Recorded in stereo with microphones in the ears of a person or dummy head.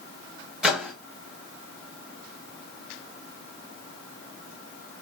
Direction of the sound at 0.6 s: 5° left (ahead or behind).